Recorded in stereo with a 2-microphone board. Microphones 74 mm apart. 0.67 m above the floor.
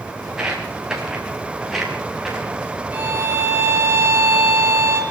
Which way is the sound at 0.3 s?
10° right (ahead or behind).